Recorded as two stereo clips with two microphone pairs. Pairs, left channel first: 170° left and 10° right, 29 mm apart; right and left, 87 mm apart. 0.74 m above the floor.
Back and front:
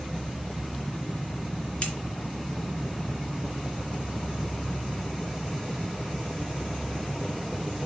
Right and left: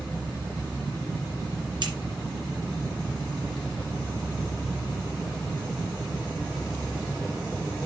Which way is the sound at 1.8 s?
115° left.